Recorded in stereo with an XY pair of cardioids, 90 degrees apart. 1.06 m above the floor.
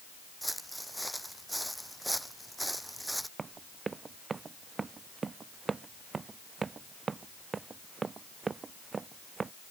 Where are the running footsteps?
35° right.